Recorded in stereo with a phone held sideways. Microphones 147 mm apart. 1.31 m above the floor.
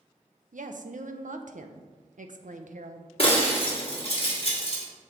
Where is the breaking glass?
45° left (ahead or behind), 1.4 m.